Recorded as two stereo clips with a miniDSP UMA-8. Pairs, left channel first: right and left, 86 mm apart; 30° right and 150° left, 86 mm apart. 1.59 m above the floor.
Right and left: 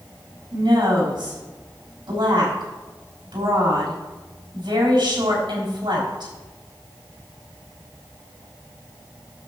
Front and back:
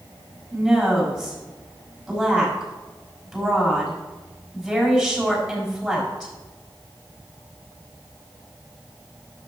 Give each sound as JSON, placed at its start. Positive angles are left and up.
{"t": 0.5, "sound": "a woman speaking", "azimuth_deg": 60, "distance_m": 5.0}